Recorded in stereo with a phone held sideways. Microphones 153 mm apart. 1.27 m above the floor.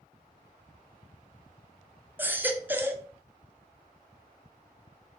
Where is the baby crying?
15° right (ahead or behind), 0.5 m.